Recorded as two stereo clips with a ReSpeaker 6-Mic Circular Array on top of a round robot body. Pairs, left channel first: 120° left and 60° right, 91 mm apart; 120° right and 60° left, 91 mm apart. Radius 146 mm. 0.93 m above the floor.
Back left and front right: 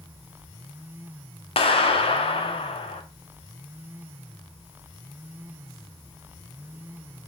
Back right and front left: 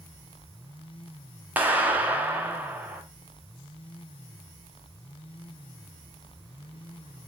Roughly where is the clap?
Behind left.